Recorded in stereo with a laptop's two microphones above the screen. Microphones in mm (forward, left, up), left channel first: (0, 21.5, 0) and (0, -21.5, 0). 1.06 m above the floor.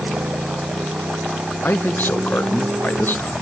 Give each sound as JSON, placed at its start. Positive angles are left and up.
{"t": 0.0, "sound": "a motorcycle", "side_deg": -85}
{"t": 1.6, "sound": "a man speaking", "side_deg": 50}